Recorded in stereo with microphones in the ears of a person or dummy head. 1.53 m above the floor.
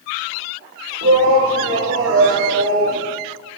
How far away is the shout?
About 1.7 m.